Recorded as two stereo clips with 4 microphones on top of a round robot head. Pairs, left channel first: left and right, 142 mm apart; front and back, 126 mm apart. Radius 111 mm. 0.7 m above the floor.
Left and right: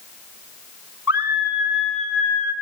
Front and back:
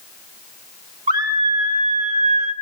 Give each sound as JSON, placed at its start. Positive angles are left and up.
{"t": 1.1, "sound": "a scream", "azimuth_deg": -165, "distance_m": 3.5}